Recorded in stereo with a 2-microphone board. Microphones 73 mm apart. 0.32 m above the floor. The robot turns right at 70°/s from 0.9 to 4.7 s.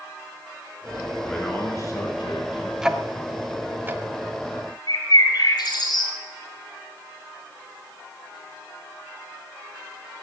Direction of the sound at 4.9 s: 60° left (ahead or behind).